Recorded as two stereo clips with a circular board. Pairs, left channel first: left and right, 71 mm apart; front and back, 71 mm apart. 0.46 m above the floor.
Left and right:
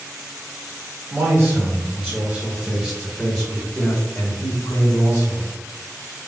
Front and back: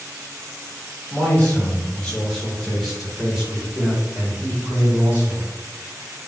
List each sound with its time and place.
1.1 s a man speaking: 55° right, 1.8 m; by 5.5 s 130° left, 2.0 m